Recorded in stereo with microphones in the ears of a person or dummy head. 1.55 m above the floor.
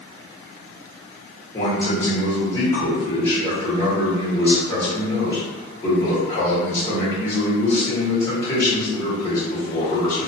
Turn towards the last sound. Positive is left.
turn(degrees=15)  # may be behind; listen again after turning